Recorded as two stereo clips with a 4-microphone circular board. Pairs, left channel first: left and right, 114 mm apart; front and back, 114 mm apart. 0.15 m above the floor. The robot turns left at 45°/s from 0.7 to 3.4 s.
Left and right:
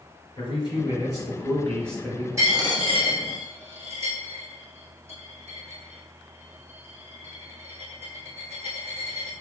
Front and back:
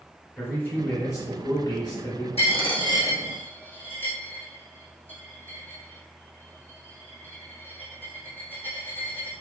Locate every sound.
0.4 s a man speaking: 65° left, 2.0 m; by 2.3 s 5° right, 2.0 m
2.4 s a dropped coin: 25° right, 1.5 m; by 9.3 s 75° right, 1.5 m